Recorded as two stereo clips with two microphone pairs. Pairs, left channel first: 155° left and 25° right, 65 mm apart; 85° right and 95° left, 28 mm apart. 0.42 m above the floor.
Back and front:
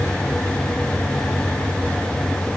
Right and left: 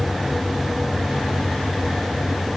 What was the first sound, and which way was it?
Only background noise.